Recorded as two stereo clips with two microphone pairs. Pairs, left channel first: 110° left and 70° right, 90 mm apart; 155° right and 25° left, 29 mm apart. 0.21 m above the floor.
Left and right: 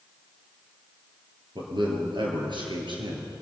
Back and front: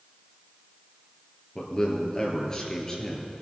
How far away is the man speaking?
About 4 m.